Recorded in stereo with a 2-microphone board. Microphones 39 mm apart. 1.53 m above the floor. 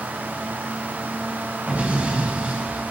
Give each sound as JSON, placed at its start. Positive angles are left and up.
{"t": 1.7, "sound": "an explosion", "side_deg": -40, "distance_m": 5.5}